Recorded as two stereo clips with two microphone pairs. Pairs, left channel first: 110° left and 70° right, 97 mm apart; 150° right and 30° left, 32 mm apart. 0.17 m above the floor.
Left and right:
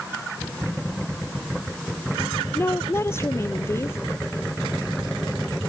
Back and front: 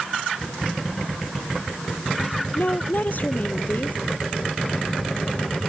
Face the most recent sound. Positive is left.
turn(degrees=175)